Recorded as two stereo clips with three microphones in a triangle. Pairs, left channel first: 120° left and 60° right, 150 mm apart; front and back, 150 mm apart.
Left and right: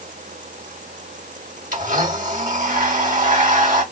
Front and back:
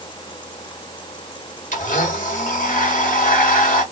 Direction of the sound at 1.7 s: 30° right.